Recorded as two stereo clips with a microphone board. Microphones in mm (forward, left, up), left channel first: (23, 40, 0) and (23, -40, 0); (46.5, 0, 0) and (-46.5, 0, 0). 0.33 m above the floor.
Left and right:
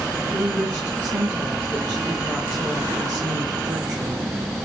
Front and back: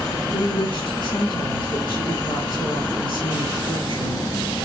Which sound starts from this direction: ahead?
A woman speaking, at 0.3 s.